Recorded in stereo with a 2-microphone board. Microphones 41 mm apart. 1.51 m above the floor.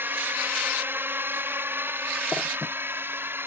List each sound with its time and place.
0.0 s a drone: 60° right (ahead or behind); by 3.5 s 65° right (ahead or behind)